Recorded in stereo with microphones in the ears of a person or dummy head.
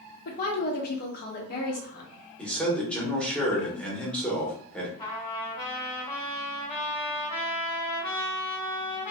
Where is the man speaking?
Centre (ahead or behind), 1.1 m.